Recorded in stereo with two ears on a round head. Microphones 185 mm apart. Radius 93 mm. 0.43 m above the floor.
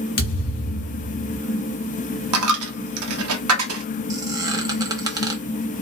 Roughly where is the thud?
Left.